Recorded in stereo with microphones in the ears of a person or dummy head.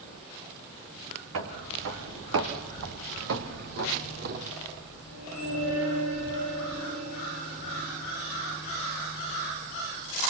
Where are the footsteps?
75° right (ahead or behind), 5 m; by 4.5 s 45° right (ahead or behind), 2.5 m.